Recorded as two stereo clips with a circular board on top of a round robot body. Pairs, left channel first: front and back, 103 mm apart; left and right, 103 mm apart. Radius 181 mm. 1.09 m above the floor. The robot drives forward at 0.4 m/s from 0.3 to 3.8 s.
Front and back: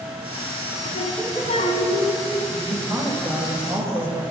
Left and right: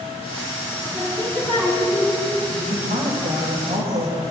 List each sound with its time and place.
0.8 s singing: 20° right, 5.5 m; by 2.2 s 25° right, 5 m
2.5 s a woman speaking: 110° right, 5.5 m; by 4.2 s 115° right, 5.5 m